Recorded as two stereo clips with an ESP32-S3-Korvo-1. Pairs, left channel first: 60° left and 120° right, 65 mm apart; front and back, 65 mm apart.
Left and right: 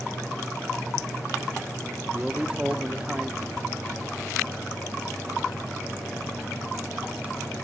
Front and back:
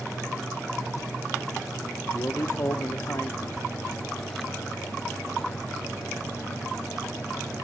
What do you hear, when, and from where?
2.1 s a man speaking: 50° right, 1.6 m